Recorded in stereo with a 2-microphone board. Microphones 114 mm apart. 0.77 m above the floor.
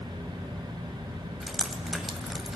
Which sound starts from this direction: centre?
Dripping, at 1.4 s.